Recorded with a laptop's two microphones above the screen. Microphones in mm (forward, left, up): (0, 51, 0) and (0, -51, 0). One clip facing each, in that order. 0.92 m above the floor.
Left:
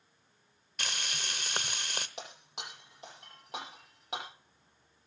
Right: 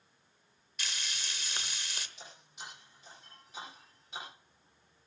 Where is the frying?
60° left (ahead or behind), 0.9 m.